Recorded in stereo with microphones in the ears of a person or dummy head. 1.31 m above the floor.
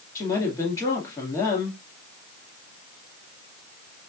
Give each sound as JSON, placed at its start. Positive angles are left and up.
{"t": 0.1, "sound": "a woman speaking", "side_deg": 10, "distance_m": 1.8}